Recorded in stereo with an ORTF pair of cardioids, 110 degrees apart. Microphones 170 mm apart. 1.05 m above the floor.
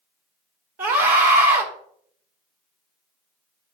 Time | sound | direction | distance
0.8 | a scream | 60° right | 3 m